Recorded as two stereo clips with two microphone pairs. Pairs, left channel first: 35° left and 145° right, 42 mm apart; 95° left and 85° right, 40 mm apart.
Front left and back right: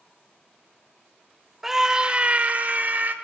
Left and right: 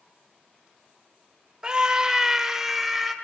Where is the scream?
75° right, 0.9 m; by 3.1 s 165° right, 1.5 m.